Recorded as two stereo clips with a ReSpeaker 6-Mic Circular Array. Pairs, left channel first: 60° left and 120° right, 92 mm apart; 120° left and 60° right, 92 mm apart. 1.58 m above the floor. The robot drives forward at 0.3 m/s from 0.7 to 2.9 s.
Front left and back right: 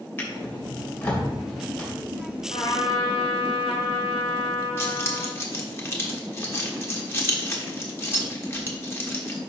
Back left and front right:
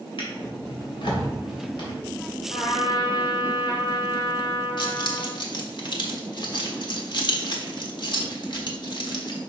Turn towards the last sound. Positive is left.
turn(degrees=115)